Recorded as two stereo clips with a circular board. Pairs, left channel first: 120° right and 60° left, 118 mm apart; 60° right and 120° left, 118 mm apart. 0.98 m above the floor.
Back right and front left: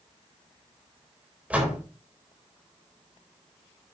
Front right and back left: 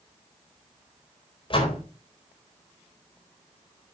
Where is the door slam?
20° right, 4 m.